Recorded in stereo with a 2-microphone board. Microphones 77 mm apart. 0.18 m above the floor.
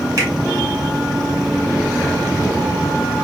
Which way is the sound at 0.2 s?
45° right (ahead or behind).